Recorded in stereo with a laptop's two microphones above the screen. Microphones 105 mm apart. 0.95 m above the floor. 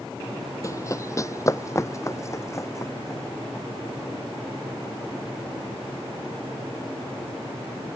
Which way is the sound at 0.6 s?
30° left (ahead or behind).